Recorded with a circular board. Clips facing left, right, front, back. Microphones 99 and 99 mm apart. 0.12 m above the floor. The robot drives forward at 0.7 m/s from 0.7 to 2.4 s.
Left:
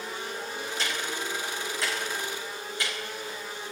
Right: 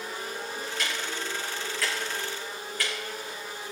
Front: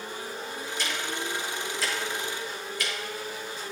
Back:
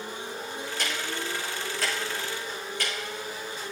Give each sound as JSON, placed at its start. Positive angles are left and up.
{"t": 0.8, "sound": "ticking", "azimuth_deg": 150, "distance_m": 3.0}